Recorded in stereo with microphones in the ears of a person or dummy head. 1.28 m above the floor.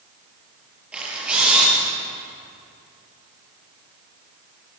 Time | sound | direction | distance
0.9 | a camera shutter | 5° right (ahead or behind) | 8.5 m